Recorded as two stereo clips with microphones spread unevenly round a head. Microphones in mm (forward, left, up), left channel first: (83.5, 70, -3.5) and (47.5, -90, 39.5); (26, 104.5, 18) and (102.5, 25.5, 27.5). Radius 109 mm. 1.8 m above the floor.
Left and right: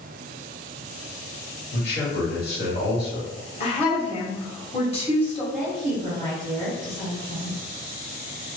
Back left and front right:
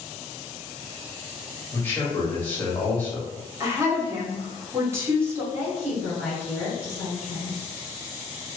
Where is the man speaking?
60° left, 1.7 m.